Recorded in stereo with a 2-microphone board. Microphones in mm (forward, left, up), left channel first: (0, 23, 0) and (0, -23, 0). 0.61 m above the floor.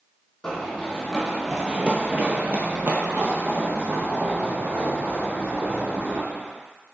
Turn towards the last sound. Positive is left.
turn(degrees=-35)  # may be behind; listen again after turning